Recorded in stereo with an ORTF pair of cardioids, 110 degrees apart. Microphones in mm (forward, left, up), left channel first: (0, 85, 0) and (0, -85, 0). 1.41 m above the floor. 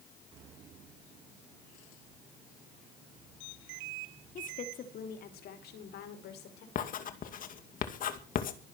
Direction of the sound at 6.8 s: 55° left.